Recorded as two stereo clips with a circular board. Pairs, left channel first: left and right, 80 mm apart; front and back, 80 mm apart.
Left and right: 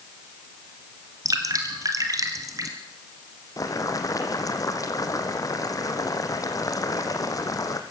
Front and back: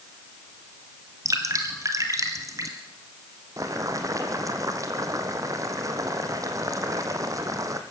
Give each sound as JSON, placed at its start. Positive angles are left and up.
{"t": 1.2, "sound": "dripping", "azimuth_deg": -135, "distance_m": 2.5}
{"t": 3.6, "sound": "boiling", "azimuth_deg": 135, "distance_m": 2.0}